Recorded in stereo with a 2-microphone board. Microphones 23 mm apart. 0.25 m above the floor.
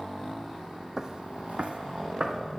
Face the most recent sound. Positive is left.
turn(degrees=-45)  # may be behind; listen again after turning